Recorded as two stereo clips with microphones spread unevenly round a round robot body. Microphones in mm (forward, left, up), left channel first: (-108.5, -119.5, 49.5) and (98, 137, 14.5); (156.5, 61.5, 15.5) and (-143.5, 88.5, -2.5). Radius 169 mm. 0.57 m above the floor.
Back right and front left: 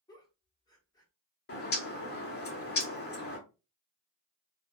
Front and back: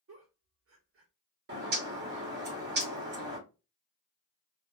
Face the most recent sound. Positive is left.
turn(degrees=-175)